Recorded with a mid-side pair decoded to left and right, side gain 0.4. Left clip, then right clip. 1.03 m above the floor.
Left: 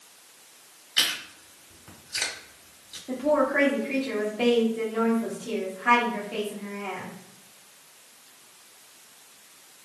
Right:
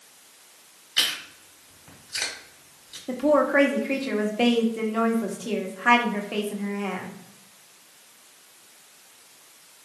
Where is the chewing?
Straight ahead, 1.6 m.